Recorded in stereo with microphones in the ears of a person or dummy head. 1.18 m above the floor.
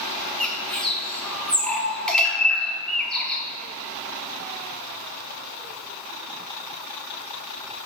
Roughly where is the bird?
Centre.